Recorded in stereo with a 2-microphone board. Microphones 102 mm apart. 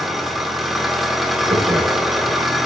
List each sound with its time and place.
0.0 s an engine running: centre (ahead or behind), 0.8 m
1.5 s laughter: 55° right (ahead or behind), 1.2 m